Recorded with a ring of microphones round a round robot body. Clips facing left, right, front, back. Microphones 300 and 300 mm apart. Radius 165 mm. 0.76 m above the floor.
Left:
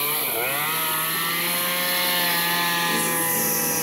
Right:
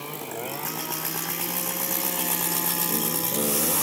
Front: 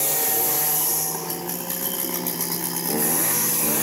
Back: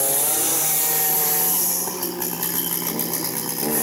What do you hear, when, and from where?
Only background noise.